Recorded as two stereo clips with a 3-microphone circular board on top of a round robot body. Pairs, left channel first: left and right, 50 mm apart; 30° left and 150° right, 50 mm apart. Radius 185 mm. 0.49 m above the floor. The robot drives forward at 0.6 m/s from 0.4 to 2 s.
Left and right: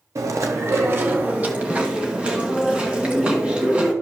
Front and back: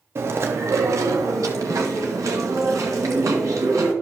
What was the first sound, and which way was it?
Chewing, 110° right.